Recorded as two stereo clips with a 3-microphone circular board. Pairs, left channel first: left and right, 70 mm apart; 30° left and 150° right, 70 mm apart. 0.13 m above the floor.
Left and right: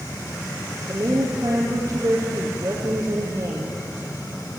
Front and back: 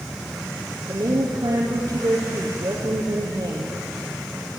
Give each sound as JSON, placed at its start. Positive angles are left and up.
{"t": 0.9, "sound": "a woman speaking", "azimuth_deg": -125, "distance_m": 3.5}